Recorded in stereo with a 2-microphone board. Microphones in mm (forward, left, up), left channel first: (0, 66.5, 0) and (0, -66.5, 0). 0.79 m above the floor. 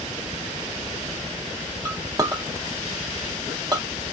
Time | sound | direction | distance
1.9 | a clink | 30° right (ahead or behind) | 0.6 m